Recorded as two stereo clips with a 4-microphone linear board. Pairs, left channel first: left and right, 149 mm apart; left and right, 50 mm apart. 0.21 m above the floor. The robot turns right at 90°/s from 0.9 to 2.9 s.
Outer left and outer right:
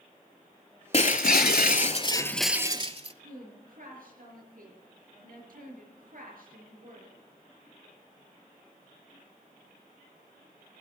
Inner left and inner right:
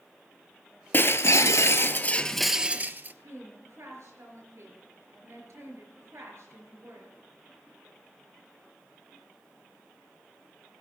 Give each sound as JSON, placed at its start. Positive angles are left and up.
{"t": 0.9, "sound": "breaking glass", "azimuth_deg": 45, "distance_m": 0.5}
{"t": 3.2, "sound": "a woman speaking", "side_deg": -70, "distance_m": 4.5}